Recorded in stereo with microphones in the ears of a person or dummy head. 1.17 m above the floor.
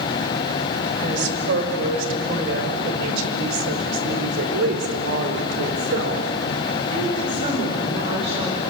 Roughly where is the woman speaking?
Right.